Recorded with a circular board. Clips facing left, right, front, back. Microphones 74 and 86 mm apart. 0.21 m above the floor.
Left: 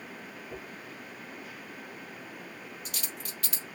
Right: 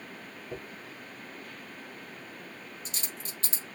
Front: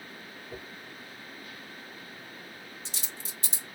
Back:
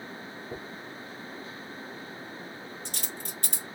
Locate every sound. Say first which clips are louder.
0.5 s a dropped coin: right 3 dB, back 3 dB; 150° right, 3 m